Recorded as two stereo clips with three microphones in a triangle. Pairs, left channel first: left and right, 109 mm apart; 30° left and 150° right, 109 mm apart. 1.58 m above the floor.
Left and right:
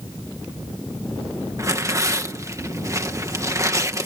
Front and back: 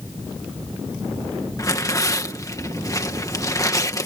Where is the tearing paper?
30° right.